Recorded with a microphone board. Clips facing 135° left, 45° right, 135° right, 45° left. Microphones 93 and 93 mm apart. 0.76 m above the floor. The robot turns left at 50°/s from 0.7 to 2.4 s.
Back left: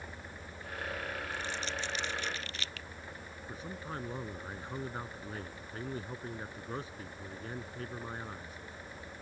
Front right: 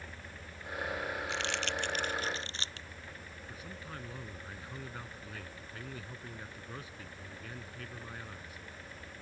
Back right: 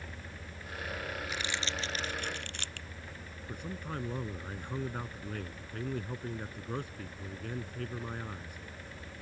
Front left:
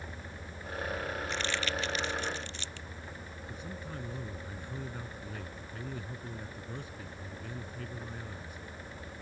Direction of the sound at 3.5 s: 165° right.